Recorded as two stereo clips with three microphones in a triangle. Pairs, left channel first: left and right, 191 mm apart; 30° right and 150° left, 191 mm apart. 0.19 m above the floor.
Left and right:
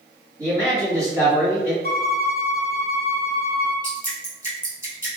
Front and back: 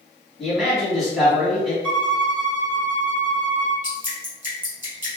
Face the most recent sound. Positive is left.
turn(degrees=120)